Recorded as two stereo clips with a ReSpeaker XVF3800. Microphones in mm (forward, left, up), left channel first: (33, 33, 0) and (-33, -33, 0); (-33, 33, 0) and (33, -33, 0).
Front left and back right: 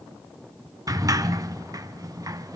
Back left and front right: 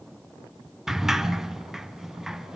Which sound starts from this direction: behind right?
A sliding door, at 0.9 s.